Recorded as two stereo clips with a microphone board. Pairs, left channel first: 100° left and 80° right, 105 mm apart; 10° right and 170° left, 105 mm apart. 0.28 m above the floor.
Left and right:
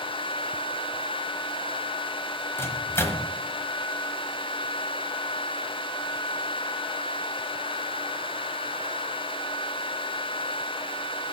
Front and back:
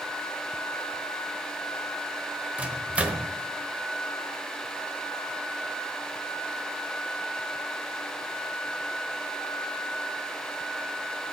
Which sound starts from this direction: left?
A microwave, at 2.6 s.